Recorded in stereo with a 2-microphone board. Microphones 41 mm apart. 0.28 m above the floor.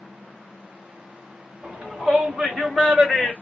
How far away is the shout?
About 1.4 m.